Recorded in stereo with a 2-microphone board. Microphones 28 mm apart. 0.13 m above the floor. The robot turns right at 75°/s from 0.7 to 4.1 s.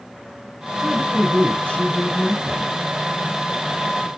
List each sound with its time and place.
0.8 s a woman speaking: 40° left, 1.4 m; by 2.7 s 175° right, 1.4 m